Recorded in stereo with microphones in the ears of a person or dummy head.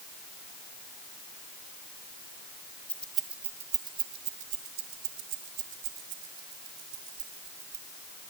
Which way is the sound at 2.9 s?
10° left (ahead or behind).